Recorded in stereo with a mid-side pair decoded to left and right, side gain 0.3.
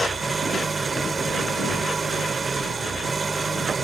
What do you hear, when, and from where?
0.0 s an engine running: 45° right